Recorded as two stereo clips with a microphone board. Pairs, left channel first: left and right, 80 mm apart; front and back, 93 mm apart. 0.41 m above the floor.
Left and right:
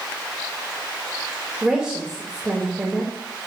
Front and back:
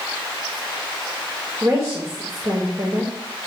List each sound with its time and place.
1.6 s a woman speaking: 160° right, 1.7 m